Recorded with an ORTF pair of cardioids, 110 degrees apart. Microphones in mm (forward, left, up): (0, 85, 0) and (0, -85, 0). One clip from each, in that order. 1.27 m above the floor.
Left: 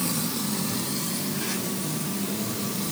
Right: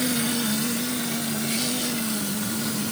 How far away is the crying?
I don't hear crying.